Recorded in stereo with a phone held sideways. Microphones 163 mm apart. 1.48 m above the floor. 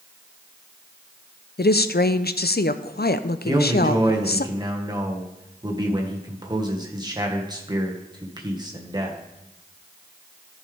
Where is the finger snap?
I don't hear a finger snap.